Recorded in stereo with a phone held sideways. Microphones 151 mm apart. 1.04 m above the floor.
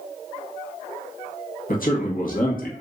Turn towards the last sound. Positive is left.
turn(degrees=65)  # may be behind; listen again after turning